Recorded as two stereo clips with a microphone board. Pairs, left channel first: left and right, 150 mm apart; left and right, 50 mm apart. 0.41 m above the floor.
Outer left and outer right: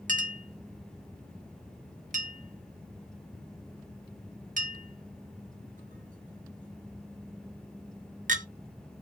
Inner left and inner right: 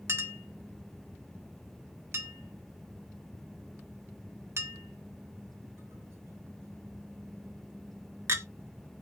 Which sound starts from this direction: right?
A clink, at 0.1 s.